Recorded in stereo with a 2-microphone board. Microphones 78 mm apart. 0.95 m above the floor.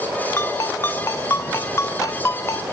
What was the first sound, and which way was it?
A ringtone, 35° left (ahead or behind).